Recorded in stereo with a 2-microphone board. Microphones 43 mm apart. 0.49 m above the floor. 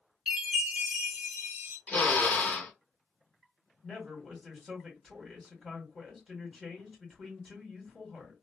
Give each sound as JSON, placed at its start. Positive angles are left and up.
{"t": 0.3, "sound": "a chime", "side_deg": -25, "distance_m": 1.1}
{"t": 1.9, "sound": "a drill", "side_deg": 35, "distance_m": 0.9}
{"t": 3.8, "sound": "a man speaking", "side_deg": 5, "distance_m": 1.6}